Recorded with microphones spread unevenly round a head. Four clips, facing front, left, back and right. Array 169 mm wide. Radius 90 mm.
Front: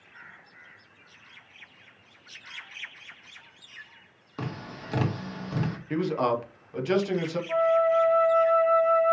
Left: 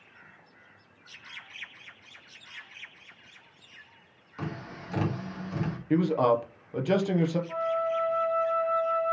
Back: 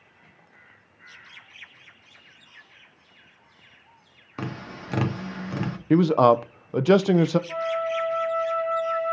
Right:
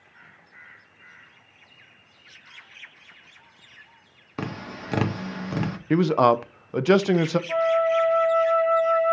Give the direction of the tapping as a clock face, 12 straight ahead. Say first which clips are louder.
Right 5 dB, back 2 dB; 3 o'clock.